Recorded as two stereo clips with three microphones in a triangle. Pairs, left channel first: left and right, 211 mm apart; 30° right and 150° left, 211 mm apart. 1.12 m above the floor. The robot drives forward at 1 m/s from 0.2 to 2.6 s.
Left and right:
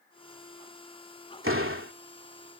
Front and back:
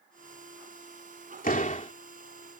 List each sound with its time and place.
1.4 s a door slam: 80° right; by 1.9 s 90° right